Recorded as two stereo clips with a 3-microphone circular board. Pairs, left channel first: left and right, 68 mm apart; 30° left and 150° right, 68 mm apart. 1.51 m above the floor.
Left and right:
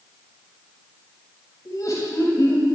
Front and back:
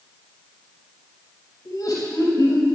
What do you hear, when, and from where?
1.6 s laughter: 55° left, 9 m